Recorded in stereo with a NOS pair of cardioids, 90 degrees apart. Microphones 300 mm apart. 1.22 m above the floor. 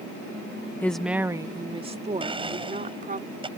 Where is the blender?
15° right.